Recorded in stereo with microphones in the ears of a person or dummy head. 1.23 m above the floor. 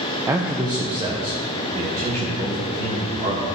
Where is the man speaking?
10° right (ahead or behind), 0.6 m; by 3.6 s 30° right (ahead or behind), 2.5 m.